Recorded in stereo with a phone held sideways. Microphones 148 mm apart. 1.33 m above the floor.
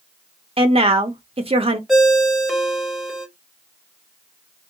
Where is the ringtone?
Centre (ahead or behind), 0.8 m.